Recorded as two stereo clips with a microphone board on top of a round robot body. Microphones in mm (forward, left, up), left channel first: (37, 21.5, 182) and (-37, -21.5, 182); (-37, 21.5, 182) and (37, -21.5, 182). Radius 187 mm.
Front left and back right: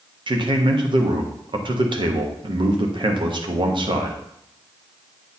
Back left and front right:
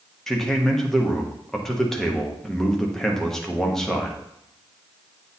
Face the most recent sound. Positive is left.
turn(degrees=-125)